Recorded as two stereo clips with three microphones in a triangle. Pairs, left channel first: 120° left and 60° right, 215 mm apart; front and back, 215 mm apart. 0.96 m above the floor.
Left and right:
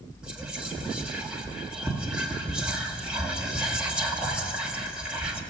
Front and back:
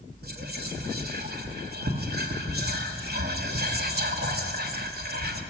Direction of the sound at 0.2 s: 145° right.